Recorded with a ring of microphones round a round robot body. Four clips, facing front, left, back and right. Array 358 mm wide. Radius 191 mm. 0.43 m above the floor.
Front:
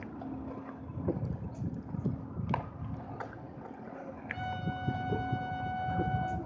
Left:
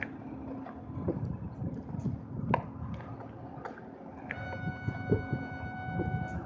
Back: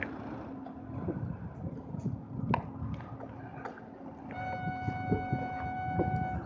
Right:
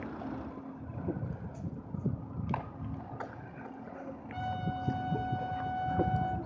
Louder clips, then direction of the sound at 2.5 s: Left 7 dB, back 2 dB; 100° left.